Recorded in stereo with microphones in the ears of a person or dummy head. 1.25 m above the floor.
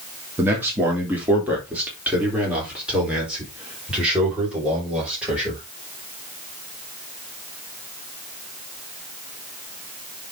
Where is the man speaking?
15° right (ahead or behind), 3 m; by 5.6 s 5° right (ahead or behind), 6 m.